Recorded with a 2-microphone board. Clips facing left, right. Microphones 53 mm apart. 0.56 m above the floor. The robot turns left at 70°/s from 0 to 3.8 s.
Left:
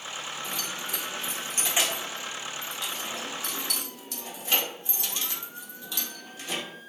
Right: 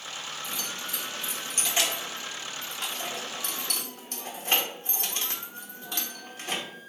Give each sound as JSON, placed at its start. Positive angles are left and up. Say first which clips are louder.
{"t": 0.4, "sound": "keys jangling", "louder": "left 1 dB", "side_deg": 55, "distance_m": 0.9}